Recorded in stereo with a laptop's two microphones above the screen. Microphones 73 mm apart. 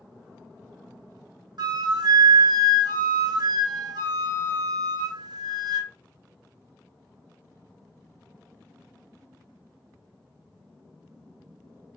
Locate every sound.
1.6 s a flute: 60° right (ahead or behind), 0.7 m